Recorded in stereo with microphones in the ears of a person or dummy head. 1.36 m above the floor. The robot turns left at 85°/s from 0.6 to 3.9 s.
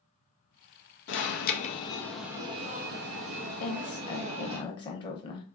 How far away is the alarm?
About 0.6 m.